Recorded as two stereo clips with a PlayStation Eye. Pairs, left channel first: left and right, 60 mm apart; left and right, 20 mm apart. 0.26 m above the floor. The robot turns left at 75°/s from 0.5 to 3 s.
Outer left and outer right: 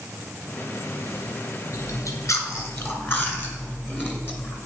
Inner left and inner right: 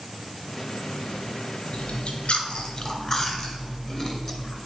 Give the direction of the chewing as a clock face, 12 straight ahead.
8 o'clock.